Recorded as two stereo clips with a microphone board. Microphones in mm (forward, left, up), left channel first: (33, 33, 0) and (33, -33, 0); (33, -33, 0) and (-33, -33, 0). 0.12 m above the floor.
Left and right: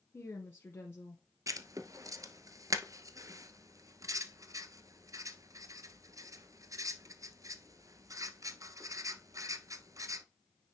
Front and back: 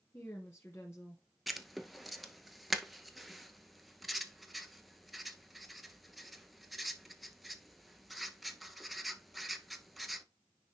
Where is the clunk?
No clunk in this recording.